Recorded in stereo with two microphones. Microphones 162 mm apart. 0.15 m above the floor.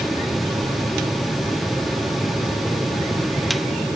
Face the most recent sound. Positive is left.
No sound to turn to.